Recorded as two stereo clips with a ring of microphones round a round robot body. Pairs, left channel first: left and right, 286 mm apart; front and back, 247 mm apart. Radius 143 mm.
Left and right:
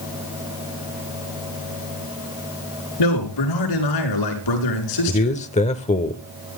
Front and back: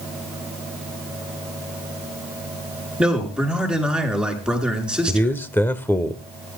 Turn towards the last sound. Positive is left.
turn(degrees=70)